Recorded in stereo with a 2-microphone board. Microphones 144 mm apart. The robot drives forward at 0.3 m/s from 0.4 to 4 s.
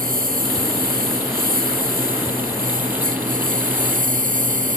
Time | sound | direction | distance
0.0 | a lawn mower | 85° right | ?